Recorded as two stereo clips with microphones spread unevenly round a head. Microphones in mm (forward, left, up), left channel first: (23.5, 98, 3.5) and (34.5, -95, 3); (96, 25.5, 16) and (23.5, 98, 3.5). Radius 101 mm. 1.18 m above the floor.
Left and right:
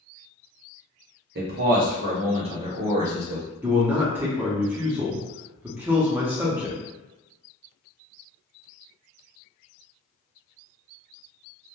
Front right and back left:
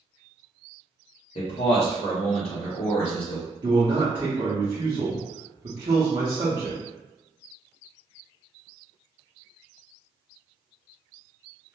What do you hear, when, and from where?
1.4 s a man speaking: 75° right, 1.0 m; by 3.5 s 10° right, 1.3 m
3.6 s a man speaking: 170° right, 0.7 m